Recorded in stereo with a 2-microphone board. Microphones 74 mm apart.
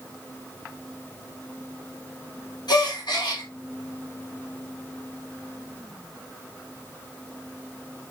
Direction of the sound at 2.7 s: 75° left (ahead or behind).